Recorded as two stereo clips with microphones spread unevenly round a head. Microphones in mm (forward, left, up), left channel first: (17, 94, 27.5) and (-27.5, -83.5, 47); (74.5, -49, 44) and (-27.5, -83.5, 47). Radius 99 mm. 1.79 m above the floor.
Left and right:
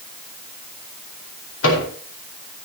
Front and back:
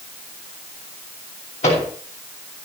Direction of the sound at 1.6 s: 60° left.